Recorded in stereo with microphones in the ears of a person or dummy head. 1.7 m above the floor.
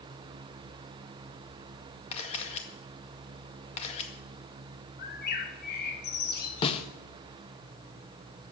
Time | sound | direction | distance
2.1 | a camera shutter | 35° left (ahead or behind) | 1.9 m
5.0 | a bird | 50° left (ahead or behind) | 1.7 m
6.6 | a snare drum | 30° left (ahead or behind) | 1.1 m